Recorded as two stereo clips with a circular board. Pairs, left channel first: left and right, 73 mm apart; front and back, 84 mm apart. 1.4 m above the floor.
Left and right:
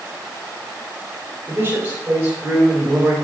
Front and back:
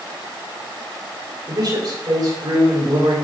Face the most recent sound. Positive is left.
turn(degrees=-160)